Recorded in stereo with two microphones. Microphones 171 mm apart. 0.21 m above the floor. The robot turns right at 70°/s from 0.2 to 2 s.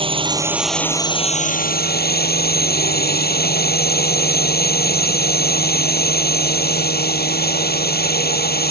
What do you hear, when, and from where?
0.0 s a drone: 35° right; by 8.7 s 90° left